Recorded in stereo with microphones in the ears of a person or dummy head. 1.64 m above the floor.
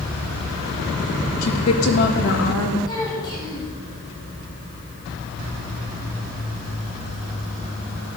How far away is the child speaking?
About 9.5 m.